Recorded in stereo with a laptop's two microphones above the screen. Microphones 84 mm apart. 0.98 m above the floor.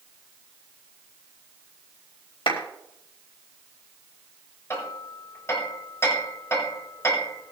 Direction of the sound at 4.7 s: 30° left (ahead or behind).